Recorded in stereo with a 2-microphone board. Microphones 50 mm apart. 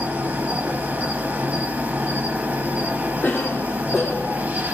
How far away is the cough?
About 0.6 m.